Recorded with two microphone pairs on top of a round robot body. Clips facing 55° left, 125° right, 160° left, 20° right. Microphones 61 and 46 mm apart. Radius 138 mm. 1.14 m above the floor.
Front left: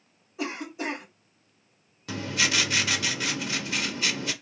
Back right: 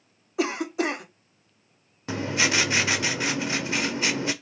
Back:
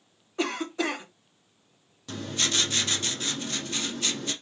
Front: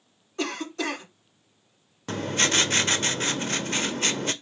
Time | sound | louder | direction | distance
0.4 | a cough | back right 7 dB, back 1 dB | 125° right | 1.1 m
2.1 | writing | back right 3 dB, front 5 dB | 55° right | 0.6 m